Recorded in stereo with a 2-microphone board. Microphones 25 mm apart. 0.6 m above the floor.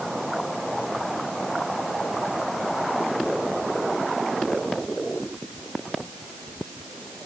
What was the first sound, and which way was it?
Only background noise.